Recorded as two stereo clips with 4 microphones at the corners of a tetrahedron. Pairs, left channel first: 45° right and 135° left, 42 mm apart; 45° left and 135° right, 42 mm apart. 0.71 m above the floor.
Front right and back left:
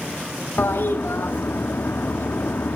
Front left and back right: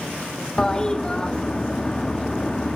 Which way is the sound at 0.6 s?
30° right.